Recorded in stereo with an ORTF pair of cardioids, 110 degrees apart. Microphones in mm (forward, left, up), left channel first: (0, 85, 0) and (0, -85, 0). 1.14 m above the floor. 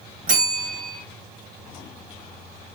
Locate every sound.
0.3 s a bell: 60° right, 2.5 m